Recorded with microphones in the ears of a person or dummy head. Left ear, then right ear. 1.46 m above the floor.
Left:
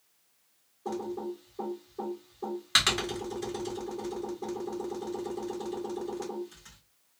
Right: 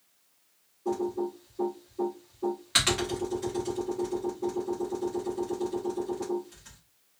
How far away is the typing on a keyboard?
About 1.3 m.